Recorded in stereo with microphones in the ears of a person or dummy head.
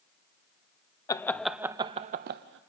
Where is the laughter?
15° left (ahead or behind), 0.6 m; by 2.6 s 65° right (ahead or behind), 0.6 m.